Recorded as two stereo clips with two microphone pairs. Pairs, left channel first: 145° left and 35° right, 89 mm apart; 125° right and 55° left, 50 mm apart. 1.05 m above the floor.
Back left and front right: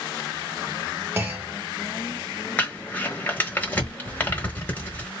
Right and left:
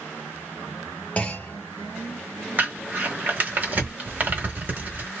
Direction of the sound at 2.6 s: 85° left.